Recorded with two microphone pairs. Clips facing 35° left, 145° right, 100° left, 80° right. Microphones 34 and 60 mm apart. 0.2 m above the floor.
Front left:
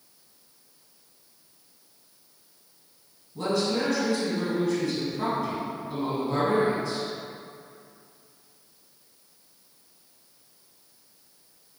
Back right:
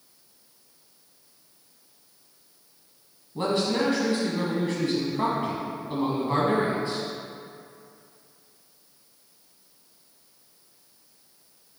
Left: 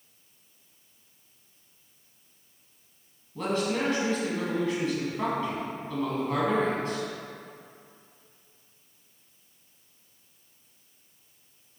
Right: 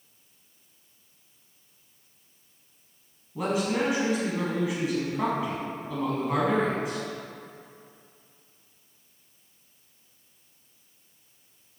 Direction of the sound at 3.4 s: 155° right.